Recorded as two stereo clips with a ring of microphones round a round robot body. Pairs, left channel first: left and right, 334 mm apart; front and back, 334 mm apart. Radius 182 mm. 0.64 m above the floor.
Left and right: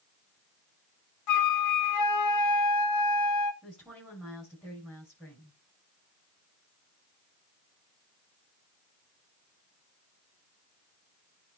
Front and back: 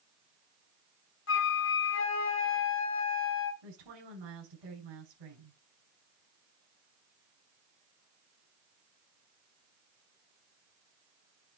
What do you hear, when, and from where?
1.3 s a flute: 55° left, 1.0 m
3.6 s a woman speaking: straight behind, 7 m